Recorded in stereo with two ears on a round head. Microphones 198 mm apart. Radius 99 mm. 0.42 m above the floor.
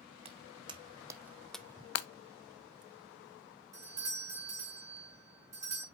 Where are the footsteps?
30° right (ahead or behind), 1.1 m; by 1.9 s 20° left (ahead or behind), 0.5 m.